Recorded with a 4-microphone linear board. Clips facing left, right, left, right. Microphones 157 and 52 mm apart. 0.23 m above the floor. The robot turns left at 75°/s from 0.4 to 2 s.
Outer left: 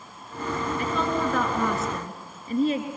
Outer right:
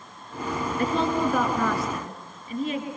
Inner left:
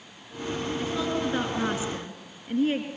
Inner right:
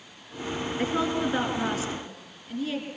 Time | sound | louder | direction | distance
0.8 | a woman speaking | outer right 4 dB, inner right 4 dB | 130° right | 3.5 m